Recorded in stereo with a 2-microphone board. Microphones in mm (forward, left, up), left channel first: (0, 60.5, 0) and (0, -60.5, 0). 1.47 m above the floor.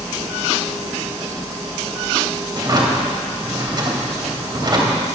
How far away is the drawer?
About 2 m.